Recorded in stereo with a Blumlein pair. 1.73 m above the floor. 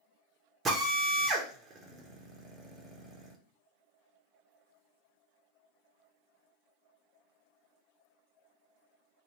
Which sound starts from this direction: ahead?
A drill, at 0.7 s.